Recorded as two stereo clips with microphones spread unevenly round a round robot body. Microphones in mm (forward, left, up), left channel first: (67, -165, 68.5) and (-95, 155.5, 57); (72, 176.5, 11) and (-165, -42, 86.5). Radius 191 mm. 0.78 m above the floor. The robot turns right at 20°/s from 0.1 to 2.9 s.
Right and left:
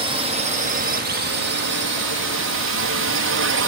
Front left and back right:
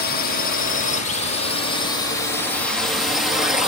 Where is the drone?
50° left; by 3.7 s 115° left.